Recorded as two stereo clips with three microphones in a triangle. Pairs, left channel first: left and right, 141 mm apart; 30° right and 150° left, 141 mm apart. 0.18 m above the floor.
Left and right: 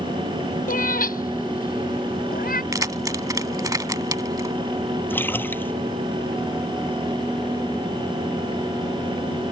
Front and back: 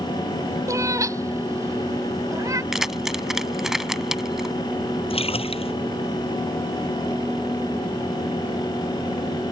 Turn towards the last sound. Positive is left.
turn(degrees=15)